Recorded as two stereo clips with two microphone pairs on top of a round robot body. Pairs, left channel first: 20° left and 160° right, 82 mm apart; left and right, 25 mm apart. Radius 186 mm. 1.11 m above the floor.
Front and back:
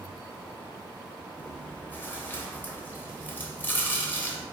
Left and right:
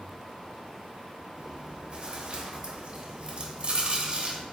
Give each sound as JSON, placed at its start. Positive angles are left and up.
{"t": 1.4, "sound": "chewing", "azimuth_deg": -45, "distance_m": 0.9}